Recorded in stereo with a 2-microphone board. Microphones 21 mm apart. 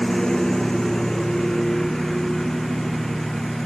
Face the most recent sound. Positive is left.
turn(degrees=15)  # may be behind; listen again after turning